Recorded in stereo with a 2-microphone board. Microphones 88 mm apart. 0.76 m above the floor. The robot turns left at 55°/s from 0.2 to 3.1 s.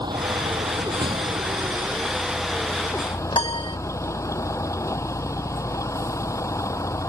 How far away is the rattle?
No rattle in this recording.